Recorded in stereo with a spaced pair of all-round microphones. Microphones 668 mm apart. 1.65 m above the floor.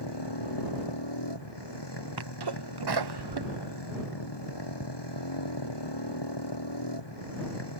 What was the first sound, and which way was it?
A motorcycle, 40° left (ahead or behind).